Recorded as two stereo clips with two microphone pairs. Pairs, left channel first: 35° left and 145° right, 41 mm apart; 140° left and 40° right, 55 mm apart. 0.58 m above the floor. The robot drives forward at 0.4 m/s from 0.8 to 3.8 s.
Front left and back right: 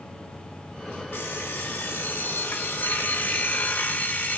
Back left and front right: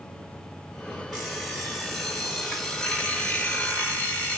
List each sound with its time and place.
1.1 s an alarm clock: 40° left, 1.9 m; by 4.4 s 75° left, 1.3 m